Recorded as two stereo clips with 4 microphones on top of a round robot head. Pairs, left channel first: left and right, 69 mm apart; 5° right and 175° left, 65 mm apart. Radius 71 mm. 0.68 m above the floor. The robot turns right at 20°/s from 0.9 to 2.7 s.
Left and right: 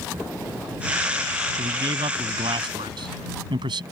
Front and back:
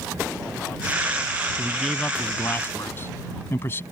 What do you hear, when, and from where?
1.6 s a man speaking: 95° right; by 3.8 s 70° right